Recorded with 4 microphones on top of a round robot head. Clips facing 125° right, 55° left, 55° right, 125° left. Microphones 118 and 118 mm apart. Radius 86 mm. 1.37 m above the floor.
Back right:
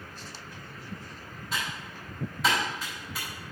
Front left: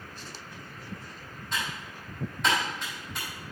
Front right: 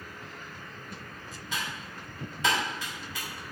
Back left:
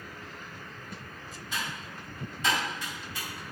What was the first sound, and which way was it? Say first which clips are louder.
Typing on a keyboard: even, even; 40° right.